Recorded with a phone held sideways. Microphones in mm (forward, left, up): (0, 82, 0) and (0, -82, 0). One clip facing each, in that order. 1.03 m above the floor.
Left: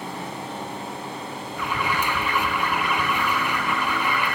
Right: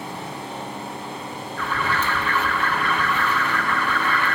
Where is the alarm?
15° left (ahead or behind), 0.8 m.